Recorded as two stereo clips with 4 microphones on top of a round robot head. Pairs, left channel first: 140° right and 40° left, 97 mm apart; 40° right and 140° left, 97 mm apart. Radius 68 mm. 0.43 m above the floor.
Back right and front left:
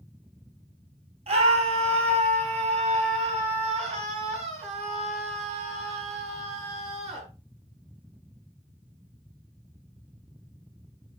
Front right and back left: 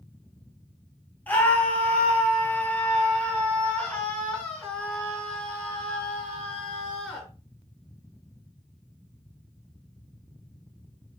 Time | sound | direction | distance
1.3 | a scream | 35° left | 3 m